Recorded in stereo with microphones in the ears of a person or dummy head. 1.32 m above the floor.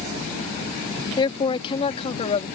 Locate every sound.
1.2 s a man speaking: 25° left (ahead or behind); by 2.5 s 35° left (ahead or behind)